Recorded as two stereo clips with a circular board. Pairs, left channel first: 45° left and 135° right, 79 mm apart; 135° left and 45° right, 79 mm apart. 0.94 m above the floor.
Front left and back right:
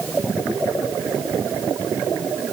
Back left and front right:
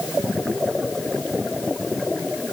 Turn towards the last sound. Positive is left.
No sound to turn to.